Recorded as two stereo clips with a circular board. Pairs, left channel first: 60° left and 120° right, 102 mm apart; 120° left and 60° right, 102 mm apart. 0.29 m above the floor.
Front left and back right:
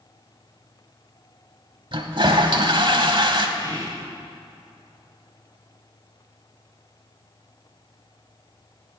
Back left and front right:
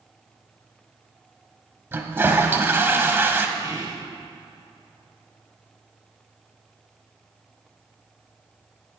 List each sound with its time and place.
1.9 s a toilet flushing: 120° right, 1.0 m
3.6 s whispering: 95° right, 2.0 m